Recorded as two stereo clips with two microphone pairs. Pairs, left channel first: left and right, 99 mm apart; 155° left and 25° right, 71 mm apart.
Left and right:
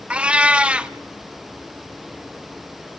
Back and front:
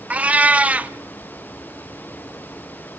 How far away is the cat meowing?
About 1.0 m.